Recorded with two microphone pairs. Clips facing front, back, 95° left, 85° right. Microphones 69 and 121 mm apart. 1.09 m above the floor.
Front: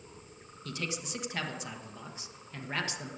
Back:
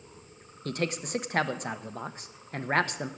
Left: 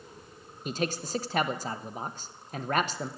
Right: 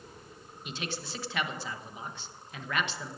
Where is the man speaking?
145° left, 0.9 m.